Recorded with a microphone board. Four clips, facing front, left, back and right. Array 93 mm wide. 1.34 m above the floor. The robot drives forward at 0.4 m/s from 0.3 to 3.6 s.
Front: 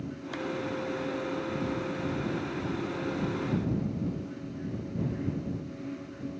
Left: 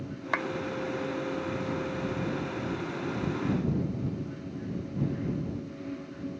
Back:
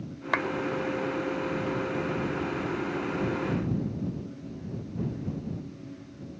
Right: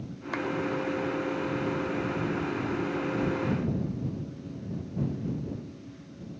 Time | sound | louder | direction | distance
0.3 | a clap | left 1 dB, back 8 dB | 155° left | ?